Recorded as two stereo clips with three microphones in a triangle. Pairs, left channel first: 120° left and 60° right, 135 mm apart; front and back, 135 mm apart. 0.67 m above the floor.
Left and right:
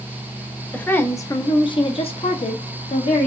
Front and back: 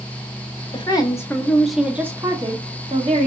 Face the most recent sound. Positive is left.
turn(degrees=150)